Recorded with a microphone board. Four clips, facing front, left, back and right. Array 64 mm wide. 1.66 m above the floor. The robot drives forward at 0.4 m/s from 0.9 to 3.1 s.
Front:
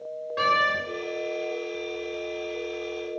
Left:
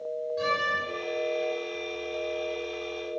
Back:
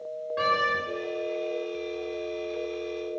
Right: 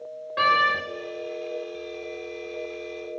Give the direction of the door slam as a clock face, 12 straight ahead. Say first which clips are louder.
Right 8 dB, front 2 dB; 3 o'clock.